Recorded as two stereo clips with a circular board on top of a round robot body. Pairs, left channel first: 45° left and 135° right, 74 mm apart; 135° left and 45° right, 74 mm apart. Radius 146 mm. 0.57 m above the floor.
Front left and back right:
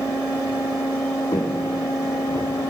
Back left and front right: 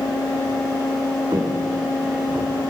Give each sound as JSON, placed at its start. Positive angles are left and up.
{"t": 1.3, "sound": "footsteps", "azimuth_deg": 10, "distance_m": 4.5}